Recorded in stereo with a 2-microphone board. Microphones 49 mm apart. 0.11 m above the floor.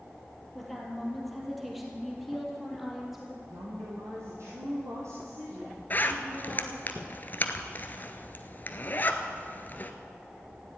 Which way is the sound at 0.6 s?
5° left (ahead or behind).